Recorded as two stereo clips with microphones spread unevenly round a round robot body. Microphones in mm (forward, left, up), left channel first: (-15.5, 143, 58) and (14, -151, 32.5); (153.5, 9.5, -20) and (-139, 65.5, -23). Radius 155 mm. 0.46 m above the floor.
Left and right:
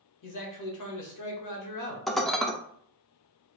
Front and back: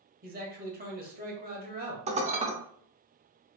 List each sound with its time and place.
0.2 s a man speaking: 110° left, 1.7 m
2.1 s dishes clattering: 165° right, 0.6 m